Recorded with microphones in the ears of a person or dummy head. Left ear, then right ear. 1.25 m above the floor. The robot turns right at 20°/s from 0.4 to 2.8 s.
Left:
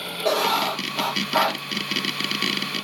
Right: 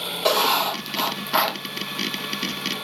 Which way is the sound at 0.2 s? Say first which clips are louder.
Right 1 dB; 40° right (ahead or behind).